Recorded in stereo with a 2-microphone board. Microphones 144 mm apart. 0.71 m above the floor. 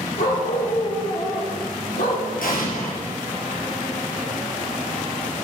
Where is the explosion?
80° left, 4.5 m.